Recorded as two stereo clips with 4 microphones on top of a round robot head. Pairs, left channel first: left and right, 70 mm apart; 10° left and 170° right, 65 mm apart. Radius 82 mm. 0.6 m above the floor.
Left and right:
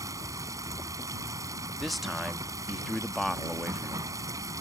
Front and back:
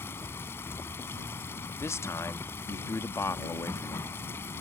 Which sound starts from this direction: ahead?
A man speaking, at 1.8 s.